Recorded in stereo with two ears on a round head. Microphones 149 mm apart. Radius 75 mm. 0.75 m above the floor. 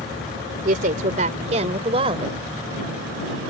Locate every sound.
0.7 s a woman speaking: 55° right (ahead or behind); by 2.4 s 30° right (ahead or behind)